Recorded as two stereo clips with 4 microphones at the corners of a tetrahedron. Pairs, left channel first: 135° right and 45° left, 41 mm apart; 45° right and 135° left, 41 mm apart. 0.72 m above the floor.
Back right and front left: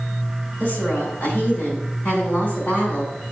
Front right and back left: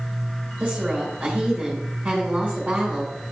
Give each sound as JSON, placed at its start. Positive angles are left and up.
{"t": 0.6, "sound": "a woman speaking", "azimuth_deg": -165, "distance_m": 3.0}